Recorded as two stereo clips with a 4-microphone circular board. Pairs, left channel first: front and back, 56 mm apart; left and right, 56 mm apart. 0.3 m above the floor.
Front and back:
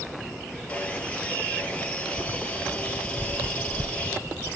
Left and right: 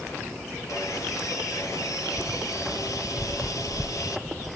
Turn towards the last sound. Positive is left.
turn(degrees=70)